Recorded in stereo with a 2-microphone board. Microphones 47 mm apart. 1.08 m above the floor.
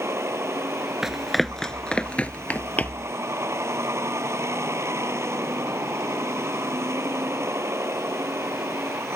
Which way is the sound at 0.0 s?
80° right.